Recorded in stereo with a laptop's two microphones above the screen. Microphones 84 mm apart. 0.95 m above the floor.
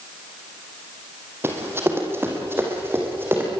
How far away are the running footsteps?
About 2.5 m.